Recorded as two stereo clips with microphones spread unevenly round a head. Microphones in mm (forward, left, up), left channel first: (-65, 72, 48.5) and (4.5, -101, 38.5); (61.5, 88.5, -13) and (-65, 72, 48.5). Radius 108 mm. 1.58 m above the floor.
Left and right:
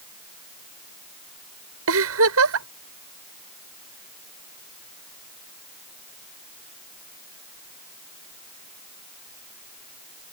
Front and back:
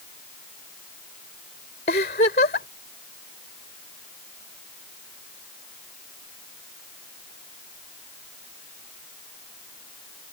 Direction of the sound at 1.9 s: 50° right.